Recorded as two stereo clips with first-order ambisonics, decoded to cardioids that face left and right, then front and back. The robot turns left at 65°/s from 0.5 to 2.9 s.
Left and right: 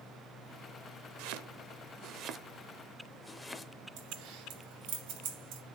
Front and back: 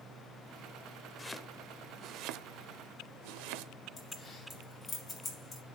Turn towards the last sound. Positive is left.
turn(degrees=-75)